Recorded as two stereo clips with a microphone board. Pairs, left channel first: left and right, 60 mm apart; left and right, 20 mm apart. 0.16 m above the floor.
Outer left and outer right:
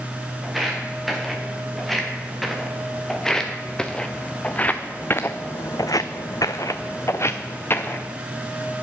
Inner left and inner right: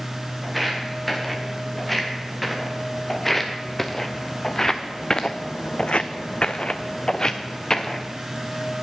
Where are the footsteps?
Centre (ahead or behind), 3 m; by 8.1 s 35° left (ahead or behind), 1.4 m.